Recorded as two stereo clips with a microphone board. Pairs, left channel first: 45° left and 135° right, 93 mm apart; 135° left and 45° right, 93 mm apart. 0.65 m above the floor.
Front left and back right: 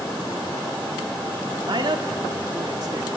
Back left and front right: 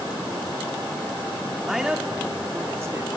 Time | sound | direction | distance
1.6 | a man speaking | 130° right | 1.5 m